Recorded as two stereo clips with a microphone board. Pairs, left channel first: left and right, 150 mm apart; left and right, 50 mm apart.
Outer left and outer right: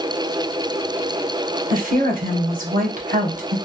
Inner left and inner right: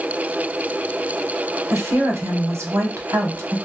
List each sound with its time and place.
1.7 s a woman speaking: 60° right (ahead or behind), 0.9 m